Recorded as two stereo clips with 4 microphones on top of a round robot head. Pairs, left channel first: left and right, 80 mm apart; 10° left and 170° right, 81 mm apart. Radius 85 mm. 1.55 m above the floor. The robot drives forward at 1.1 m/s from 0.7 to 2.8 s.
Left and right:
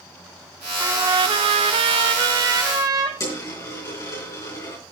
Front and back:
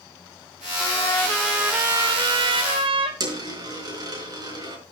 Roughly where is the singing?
I don't hear singing.